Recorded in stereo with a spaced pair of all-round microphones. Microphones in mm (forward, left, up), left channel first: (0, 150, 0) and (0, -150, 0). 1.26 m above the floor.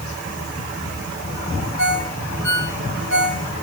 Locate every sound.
1.8 s a ringtone: 60° left (ahead or behind), 3 m